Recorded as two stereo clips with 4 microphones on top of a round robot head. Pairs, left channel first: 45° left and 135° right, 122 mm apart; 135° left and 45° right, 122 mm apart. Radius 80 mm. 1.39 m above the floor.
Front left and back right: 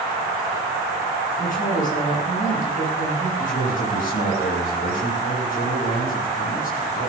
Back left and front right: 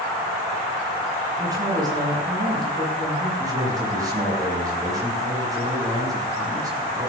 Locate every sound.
1.4 s a woman speaking: 20° left, 8 m
3.4 s a man speaking: 20° left, 7.5 m